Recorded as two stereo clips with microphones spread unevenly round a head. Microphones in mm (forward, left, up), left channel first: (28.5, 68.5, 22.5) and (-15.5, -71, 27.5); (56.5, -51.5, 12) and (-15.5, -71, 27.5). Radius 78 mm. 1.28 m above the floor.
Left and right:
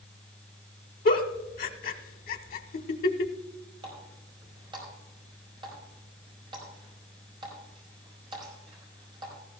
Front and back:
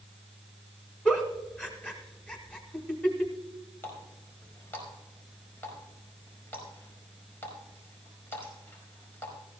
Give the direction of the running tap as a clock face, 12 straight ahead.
2 o'clock.